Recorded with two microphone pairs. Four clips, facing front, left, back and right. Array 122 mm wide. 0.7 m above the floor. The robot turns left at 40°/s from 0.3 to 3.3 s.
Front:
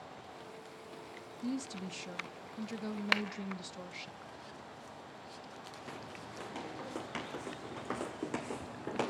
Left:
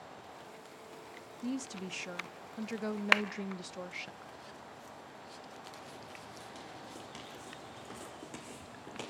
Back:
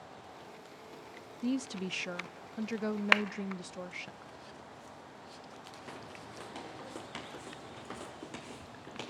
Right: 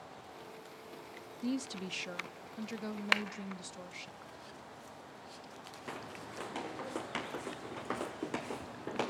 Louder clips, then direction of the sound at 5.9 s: Right 4 dB, even; 95° right.